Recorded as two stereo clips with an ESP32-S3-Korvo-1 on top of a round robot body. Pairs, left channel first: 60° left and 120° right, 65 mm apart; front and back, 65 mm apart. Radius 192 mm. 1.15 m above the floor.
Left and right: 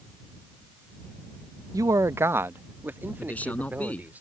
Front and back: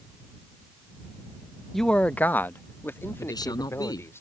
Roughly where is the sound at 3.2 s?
Ahead.